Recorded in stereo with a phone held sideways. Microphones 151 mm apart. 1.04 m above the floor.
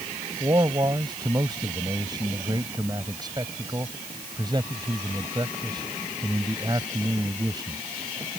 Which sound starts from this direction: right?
A man speaking, at 0.4 s.